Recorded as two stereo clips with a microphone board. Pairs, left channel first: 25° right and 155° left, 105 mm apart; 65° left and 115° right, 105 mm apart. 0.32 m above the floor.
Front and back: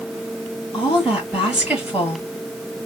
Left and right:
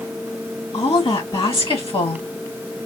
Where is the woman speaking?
80° left, 2.5 m.